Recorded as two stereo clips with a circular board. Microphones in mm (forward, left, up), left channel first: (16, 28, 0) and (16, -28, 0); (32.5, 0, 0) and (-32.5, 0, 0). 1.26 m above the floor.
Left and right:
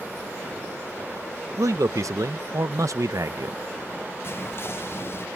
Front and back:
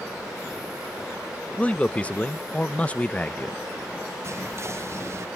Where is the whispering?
135° left.